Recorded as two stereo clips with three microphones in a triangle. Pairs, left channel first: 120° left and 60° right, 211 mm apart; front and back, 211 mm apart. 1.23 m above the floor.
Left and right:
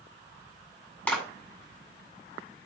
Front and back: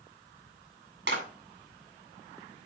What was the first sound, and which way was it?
A clap, 155° right.